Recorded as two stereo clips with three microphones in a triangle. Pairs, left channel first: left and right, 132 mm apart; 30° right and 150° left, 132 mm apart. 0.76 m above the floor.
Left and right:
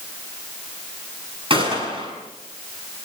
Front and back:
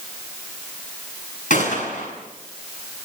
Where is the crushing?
I don't hear crushing.